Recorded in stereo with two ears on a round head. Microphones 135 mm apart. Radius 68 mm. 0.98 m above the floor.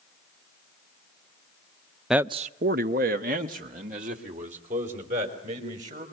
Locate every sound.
2.1 s a man speaking: centre (ahead or behind), 0.5 m; by 6.0 s 55° right (ahead or behind), 5.5 m